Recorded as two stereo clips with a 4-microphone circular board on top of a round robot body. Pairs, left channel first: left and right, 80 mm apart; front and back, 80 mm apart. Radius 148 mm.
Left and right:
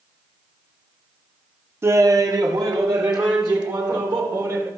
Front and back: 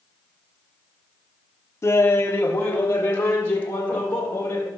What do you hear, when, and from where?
1.8 s laughter: 40° right, 0.7 m; by 4.7 s 65° right, 4 m